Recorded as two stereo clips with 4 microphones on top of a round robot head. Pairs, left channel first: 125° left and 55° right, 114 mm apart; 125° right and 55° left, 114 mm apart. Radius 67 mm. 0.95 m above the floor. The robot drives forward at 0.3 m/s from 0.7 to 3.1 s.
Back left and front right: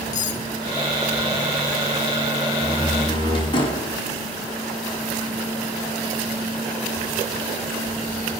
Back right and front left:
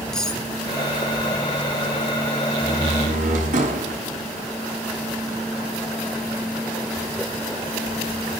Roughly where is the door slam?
Left.